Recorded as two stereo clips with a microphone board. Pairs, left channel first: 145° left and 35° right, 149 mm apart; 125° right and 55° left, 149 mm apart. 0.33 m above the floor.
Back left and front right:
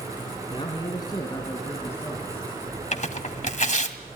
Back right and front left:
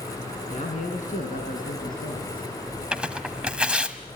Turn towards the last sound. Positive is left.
turn(degrees=140)